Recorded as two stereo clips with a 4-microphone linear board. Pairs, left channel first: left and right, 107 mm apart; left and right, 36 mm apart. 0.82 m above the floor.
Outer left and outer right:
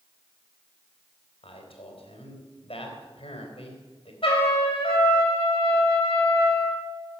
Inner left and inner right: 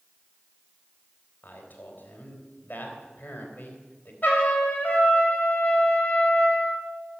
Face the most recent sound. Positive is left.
turn(degrees=55)  # may be behind; listen again after turning